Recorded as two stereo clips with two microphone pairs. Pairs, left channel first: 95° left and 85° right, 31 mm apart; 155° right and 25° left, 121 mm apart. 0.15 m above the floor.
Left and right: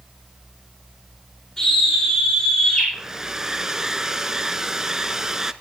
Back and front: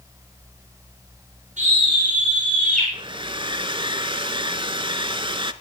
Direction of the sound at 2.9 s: 15° right.